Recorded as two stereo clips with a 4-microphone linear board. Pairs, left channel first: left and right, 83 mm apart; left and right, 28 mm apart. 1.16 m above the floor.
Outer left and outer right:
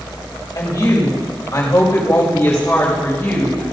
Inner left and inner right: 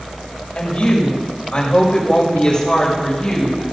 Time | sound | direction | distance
0.6 | a woman speaking | 50° left (ahead or behind) | 5 m